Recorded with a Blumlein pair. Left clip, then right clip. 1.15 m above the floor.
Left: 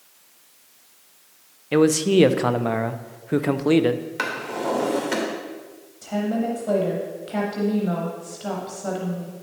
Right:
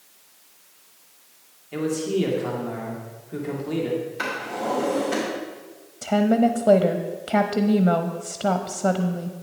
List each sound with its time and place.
1.7 s a man speaking: 45° left, 0.7 m
4.2 s a drawer: 60° left, 3 m
6.0 s a woman speaking: 60° right, 0.8 m